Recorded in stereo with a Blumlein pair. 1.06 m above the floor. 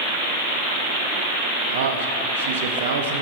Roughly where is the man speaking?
Ahead right.